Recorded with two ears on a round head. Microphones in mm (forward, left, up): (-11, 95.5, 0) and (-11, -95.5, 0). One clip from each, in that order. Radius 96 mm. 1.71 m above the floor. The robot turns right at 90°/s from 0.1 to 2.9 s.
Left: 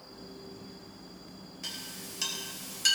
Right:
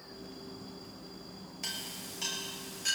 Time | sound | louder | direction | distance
1.6 | a clink | right 1 dB | 15° right (ahead or behind) | 5 m